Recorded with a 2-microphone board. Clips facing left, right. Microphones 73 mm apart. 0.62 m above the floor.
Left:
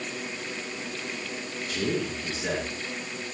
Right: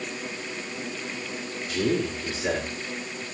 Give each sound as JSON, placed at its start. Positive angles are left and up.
{"t": 1.7, "sound": "a man speaking", "side_deg": -5, "distance_m": 7.0}